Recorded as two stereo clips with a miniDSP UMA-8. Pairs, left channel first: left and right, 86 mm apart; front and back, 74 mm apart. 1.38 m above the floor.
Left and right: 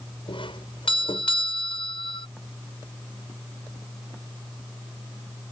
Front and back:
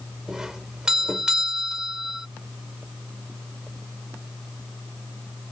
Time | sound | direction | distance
0.3 | a doorbell | 100° left | ?